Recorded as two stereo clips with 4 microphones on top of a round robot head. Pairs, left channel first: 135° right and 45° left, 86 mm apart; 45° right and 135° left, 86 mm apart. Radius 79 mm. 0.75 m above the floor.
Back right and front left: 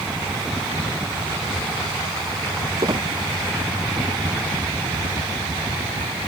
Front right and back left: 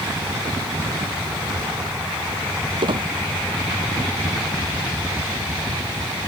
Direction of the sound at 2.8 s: 100° left.